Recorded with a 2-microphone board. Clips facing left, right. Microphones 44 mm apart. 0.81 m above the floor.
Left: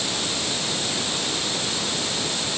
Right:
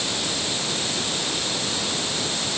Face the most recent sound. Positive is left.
No sound to turn to.